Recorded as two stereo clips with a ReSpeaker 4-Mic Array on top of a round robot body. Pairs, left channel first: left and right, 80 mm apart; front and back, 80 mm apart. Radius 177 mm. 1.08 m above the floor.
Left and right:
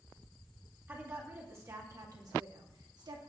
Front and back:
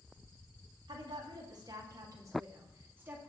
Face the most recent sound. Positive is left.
turn(degrees=-115)